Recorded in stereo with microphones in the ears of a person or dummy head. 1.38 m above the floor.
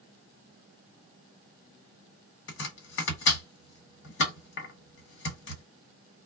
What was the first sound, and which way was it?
Chopping, 70° left (ahead or behind).